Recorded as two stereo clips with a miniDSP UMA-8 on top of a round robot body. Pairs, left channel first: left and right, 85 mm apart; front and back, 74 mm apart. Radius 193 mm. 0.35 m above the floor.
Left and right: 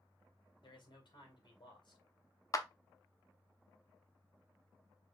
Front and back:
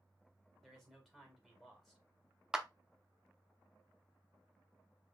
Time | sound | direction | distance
0.6 | a man speaking | 85° left | 3 m
2.5 | a clap | 105° left | 1.1 m